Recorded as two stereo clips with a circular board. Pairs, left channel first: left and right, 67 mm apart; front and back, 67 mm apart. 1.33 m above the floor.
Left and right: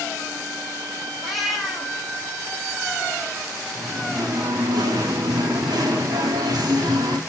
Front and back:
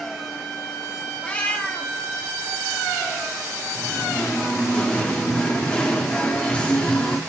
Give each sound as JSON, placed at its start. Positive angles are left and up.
{"t": 1.2, "sound": "a cat meowing", "azimuth_deg": -10, "distance_m": 0.8}
{"t": 3.8, "sound": "singing", "azimuth_deg": -75, "distance_m": 0.8}